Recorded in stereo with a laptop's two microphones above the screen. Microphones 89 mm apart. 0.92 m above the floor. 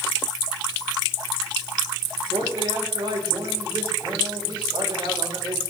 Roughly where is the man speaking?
Right.